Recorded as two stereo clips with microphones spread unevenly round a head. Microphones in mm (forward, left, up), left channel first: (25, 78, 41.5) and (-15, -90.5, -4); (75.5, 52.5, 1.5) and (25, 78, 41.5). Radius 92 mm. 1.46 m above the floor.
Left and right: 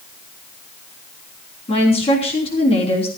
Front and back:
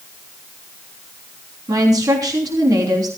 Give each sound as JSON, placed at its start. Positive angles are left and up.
{"t": 1.7, "sound": "a woman speaking", "azimuth_deg": 135, "distance_m": 3.5}